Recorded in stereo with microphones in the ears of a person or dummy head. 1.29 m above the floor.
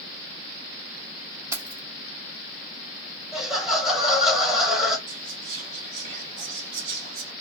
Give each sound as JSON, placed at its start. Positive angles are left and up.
{"t": 1.5, "sound": "keys jangling", "side_deg": -15, "distance_m": 1.0}
{"t": 3.3, "sound": "laughter", "side_deg": 0, "distance_m": 1.3}
{"t": 5.1, "sound": "whispering", "side_deg": -65, "distance_m": 1.2}